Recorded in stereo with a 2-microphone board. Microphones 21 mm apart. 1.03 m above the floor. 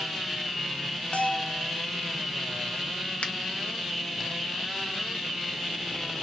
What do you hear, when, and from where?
1.1 s a bell: 70° left (ahead or behind), 0.6 m
3.2 s a finger snap: 75° left (ahead or behind), 0.7 m